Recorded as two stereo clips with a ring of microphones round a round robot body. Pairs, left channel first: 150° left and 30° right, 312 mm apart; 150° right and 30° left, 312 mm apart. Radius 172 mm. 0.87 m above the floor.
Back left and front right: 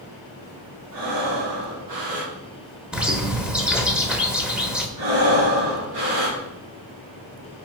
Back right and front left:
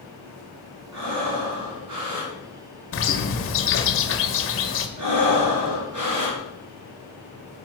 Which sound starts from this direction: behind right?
A bird, at 2.9 s.